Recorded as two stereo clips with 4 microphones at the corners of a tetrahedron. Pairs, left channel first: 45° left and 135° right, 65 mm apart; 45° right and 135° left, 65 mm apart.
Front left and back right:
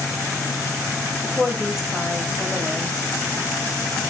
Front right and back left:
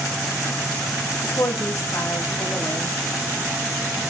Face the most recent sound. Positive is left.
turn(degrees=-50)